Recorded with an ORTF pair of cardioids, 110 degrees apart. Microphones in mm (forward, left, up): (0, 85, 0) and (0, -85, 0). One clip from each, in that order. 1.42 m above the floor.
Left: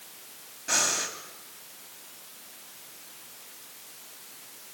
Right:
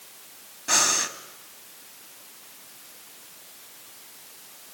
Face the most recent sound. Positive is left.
turn(degrees=-20)